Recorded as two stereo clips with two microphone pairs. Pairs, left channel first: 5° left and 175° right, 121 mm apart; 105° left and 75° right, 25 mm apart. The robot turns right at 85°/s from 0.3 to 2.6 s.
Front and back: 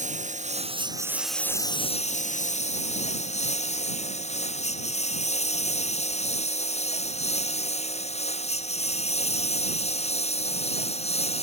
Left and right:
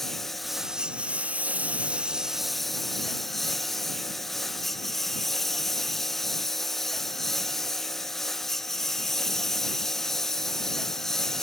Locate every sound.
0.0 s a lawn mower: 170° right; by 11.4 s 35° left